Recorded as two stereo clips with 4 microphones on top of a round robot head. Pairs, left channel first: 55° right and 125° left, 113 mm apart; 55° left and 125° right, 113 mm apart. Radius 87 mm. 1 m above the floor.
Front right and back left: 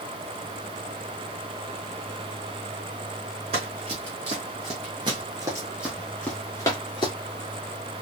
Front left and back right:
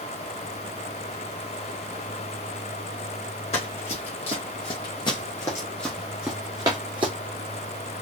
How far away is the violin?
I don't hear a violin.